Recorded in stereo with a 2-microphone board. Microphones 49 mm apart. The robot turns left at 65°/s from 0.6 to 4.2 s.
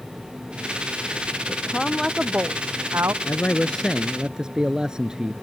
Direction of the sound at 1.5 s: 30° left.